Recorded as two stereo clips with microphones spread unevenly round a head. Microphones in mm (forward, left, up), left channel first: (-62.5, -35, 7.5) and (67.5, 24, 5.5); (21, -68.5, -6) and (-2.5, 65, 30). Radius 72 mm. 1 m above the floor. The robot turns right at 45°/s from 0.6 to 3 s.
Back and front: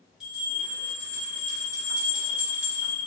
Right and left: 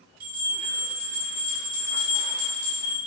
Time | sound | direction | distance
0.2 | a bell | 110° left | 1.1 m